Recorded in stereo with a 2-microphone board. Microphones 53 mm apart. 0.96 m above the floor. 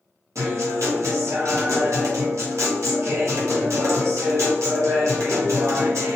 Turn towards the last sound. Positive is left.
turn(degrees=-65)  # may be behind; listen again after turning